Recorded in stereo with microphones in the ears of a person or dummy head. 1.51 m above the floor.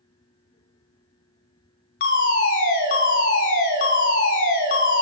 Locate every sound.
2.0 s a fire alarm: 40° left (ahead or behind), 2 m